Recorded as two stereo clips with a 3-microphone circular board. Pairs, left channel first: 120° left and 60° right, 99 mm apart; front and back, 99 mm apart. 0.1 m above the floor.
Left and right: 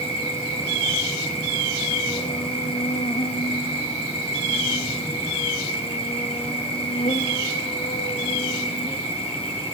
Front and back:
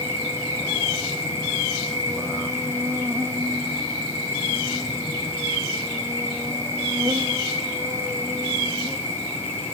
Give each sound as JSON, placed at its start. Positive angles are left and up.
{"t": 0.0, "sound": "an insect", "azimuth_deg": 115, "distance_m": 1.6}